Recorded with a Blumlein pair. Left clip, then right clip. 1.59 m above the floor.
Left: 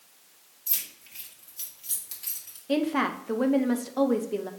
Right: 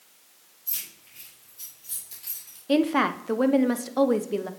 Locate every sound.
0.7 s keys jangling: 55° left, 2.5 m; by 2.6 s 15° left, 3 m
2.7 s a woman speaking: 15° right, 0.6 m